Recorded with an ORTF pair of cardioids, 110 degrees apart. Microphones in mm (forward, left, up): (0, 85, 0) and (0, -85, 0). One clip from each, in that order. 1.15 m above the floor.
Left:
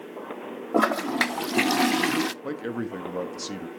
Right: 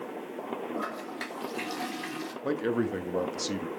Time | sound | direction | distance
0.7 | a toilet flushing | 70° left | 0.5 m
2.4 | a man speaking | 5° right | 1.3 m